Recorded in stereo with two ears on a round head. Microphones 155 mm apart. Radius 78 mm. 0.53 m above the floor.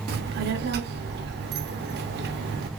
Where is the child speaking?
65° right (ahead or behind), 0.7 m.